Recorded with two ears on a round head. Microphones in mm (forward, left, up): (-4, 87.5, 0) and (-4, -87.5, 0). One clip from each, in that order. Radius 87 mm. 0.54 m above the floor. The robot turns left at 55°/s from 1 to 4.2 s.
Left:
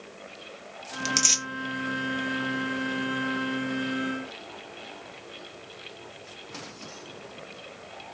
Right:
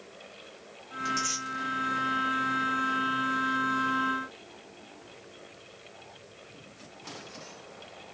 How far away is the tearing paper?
About 0.7 m.